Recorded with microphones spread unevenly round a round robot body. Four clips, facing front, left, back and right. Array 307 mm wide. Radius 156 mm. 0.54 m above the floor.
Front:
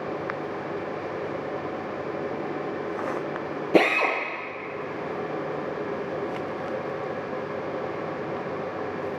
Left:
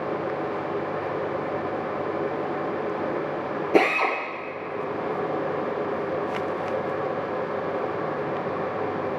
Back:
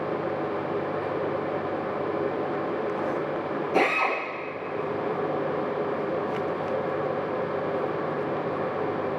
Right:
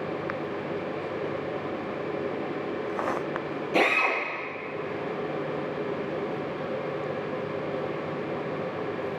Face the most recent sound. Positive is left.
turn(degrees=30)